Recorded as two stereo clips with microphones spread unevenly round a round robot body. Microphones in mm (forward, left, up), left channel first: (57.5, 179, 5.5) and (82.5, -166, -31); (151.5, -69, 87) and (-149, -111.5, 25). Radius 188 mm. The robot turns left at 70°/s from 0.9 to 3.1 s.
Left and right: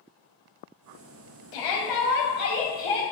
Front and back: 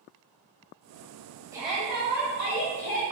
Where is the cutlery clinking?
No cutlery clinking in this recording.